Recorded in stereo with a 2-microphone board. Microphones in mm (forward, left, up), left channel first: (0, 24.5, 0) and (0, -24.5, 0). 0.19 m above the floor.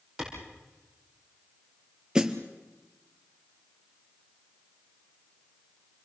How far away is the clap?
About 7 m.